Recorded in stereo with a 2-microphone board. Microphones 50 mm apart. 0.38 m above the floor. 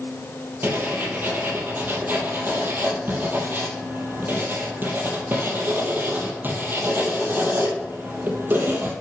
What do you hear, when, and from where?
0.6 s writing: 45° right (ahead or behind), 2.5 m